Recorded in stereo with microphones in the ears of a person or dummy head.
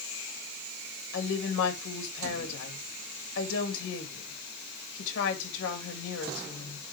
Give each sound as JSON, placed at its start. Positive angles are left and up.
{"t": 1.1, "sound": "a woman speaking", "side_deg": 70, "distance_m": 2.5}